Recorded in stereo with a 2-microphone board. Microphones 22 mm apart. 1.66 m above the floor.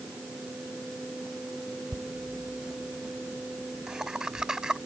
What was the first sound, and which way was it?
Laughter, 15° right (ahead or behind).